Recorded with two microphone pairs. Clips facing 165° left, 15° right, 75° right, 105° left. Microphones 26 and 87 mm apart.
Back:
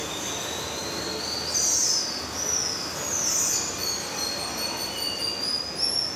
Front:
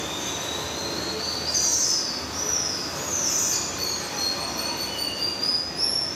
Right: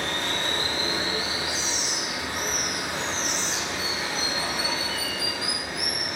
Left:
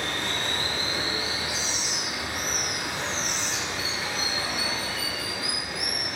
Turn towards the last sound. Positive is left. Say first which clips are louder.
# front 1 dB, right 1 dB
turn(degrees=-70)